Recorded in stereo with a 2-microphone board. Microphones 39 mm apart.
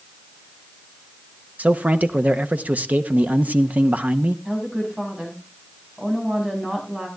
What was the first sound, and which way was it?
A man speaking, 50° right (ahead or behind).